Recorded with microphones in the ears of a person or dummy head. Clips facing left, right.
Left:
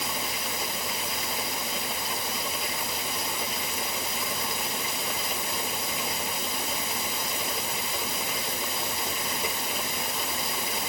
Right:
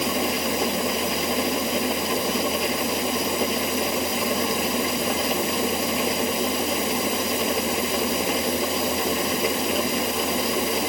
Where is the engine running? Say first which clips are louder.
Right 11 dB; 55° right (ahead or behind).